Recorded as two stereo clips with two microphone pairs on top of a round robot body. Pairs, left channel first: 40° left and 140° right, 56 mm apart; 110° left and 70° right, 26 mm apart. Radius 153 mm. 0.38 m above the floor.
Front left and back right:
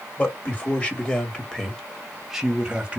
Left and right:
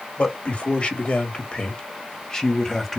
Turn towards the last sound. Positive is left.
turn(degrees=-165)